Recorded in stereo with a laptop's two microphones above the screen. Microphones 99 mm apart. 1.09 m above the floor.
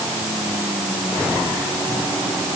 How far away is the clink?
No clink in this recording.